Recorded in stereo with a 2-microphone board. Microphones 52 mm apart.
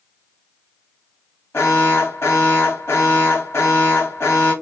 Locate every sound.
1.5 s an alarm: 55° left (ahead or behind), 1.6 m